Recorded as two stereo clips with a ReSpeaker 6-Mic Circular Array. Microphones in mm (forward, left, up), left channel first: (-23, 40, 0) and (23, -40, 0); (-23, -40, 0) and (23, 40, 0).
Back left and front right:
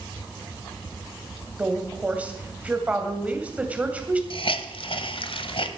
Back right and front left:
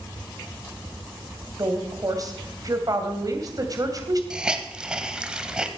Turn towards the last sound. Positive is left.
turn(degrees=140)